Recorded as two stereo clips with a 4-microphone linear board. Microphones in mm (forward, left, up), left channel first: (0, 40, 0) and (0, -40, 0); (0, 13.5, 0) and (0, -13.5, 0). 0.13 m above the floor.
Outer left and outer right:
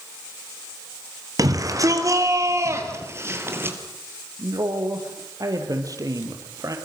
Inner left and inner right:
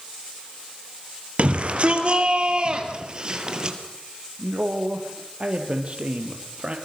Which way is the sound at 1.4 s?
45° right (ahead or behind).